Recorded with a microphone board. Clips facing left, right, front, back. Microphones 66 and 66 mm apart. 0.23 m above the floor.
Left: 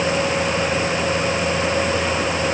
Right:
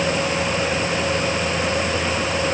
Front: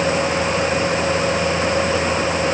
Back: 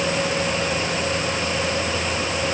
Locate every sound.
Only background noise.